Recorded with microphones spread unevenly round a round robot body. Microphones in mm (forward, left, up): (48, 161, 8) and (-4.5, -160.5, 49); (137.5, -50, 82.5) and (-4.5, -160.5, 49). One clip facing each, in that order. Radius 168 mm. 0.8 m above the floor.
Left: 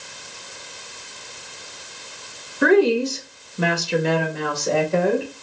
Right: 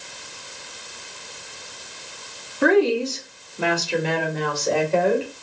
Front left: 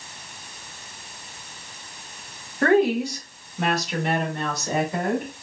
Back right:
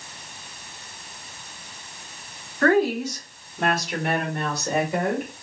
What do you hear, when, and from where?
2.6 s a woman speaking: 100° left, 1.0 m; by 5.3 s 150° left, 2.0 m